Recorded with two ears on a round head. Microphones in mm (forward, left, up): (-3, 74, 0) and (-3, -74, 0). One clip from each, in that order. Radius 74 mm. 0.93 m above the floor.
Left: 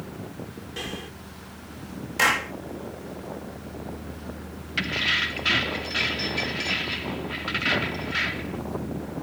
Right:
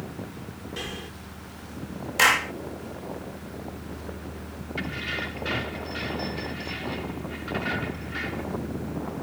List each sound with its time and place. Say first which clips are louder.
0.8 s breathing: left 1 dB; centre (ahead or behind)
2.2 s a clap: right 2 dB; 15° right (ahead or behind)
4.8 s keys jangling: left 8 dB; 70° left (ahead or behind)